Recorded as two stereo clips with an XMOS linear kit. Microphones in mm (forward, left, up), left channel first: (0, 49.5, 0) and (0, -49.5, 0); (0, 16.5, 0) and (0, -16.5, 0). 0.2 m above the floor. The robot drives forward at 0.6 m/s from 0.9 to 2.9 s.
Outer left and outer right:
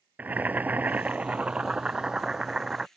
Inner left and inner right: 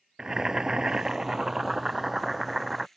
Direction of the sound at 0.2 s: 15° right (ahead or behind).